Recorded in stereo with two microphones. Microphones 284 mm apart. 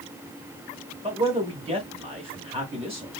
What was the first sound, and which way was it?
A man speaking, 20° right (ahead or behind).